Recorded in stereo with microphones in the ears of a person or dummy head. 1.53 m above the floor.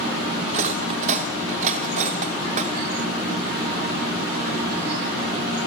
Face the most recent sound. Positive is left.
turn(degrees=-50)  # may be behind; listen again after turning